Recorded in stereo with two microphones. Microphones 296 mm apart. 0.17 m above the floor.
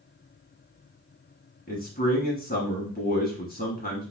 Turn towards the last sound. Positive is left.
turn(degrees=30)  # may be behind; listen again after turning